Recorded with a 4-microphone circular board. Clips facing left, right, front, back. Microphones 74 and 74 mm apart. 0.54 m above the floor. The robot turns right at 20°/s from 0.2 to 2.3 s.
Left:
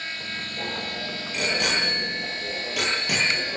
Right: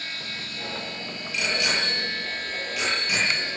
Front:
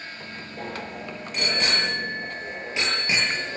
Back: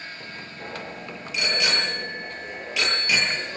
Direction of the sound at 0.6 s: 30° left.